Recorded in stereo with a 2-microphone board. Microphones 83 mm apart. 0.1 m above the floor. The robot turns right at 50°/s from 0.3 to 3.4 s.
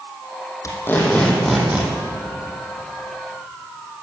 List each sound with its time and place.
0.6 s tape being pulled: 140° left, 4.5 m; by 1.9 s 155° right, 4.5 m